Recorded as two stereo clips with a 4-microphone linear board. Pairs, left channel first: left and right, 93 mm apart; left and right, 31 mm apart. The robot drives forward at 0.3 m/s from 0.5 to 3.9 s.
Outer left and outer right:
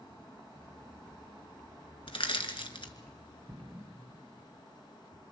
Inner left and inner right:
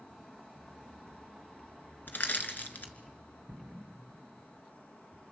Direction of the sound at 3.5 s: 35° right (ahead or behind).